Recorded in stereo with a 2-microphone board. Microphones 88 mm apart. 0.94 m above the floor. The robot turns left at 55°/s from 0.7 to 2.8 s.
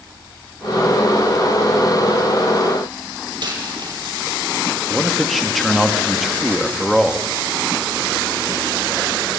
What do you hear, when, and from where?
3.4 s a dropped coin: 60° right (ahead or behind), 5 m
4.9 s a man speaking: centre (ahead or behind), 1.7 m